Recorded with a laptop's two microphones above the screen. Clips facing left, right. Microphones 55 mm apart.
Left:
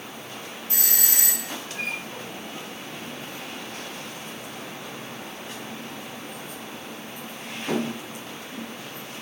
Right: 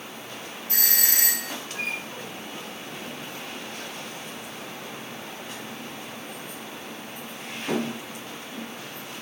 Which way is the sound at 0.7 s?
70° right (ahead or behind).